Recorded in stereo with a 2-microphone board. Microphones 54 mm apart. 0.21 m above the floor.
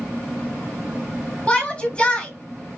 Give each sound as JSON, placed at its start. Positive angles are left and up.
{"t": 1.5, "sound": "a shout", "side_deg": 20, "distance_m": 1.4}